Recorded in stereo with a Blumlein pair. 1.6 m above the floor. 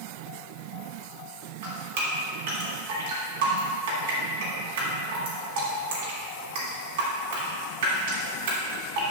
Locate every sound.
1.6 s dripping: 60° right, 3 m